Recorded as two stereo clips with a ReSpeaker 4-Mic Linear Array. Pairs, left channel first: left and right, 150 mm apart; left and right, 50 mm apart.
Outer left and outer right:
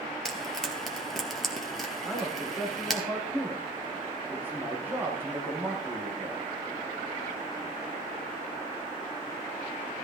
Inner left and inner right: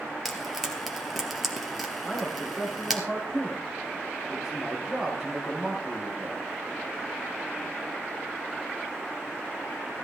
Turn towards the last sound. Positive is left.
turn(degrees=-15)  # may be behind; listen again after turning